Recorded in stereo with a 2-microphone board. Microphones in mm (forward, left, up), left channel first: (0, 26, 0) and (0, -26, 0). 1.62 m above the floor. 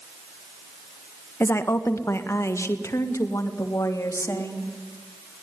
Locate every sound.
1.4 s a woman speaking: 50° left (ahead or behind), 1.6 m; by 4.7 s 75° left (ahead or behind), 3.5 m